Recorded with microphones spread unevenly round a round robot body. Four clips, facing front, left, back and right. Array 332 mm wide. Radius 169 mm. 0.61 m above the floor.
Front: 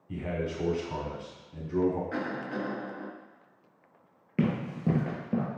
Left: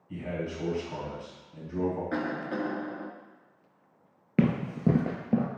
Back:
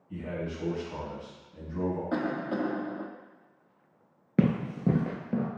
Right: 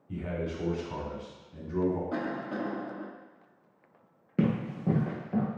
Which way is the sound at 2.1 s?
165° left.